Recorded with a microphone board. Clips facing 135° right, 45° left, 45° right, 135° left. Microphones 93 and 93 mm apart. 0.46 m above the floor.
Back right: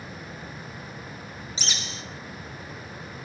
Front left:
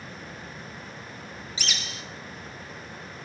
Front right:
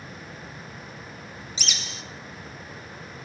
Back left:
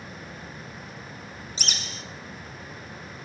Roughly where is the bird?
Behind.